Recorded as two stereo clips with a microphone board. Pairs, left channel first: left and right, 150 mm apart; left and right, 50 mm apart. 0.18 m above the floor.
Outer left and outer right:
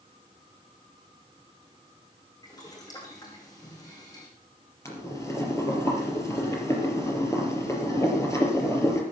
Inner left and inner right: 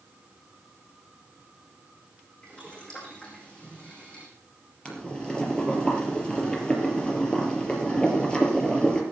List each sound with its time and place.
2.4 s boiling: 25° left (ahead or behind), 6 m
4.8 s boiling: 20° left (ahead or behind), 4 m